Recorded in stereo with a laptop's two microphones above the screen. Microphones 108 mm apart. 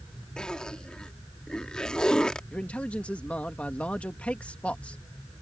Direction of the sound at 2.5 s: 10° left (ahead or behind).